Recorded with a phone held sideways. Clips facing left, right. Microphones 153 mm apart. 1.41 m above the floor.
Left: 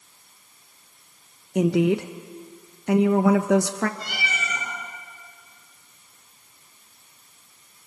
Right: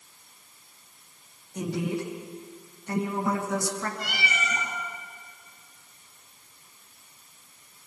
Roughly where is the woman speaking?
Left.